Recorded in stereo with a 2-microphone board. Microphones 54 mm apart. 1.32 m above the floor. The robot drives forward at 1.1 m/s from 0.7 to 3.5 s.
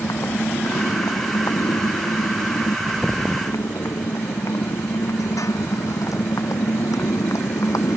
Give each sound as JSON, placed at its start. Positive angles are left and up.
{"t": 0.0, "sound": "a motorcycle", "side_deg": 80}